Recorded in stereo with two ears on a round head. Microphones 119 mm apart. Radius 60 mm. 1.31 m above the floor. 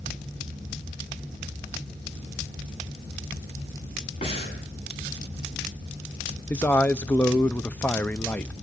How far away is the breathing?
About 7 m.